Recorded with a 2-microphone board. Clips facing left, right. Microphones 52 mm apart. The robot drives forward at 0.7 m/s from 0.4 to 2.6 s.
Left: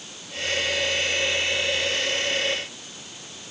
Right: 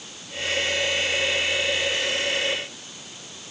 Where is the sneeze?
No sneeze in this recording.